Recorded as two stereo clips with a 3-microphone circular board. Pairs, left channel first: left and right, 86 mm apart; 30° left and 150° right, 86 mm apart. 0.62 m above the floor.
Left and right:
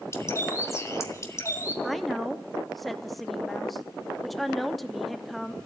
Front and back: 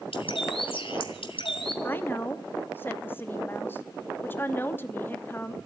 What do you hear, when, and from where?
0.1 s a bird: 35° left, 1.8 m
1.8 s a woman speaking: straight ahead, 0.8 m